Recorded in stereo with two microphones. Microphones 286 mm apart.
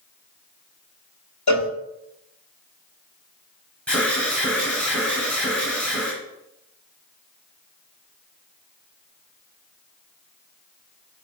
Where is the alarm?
5° left (ahead or behind), 2 m.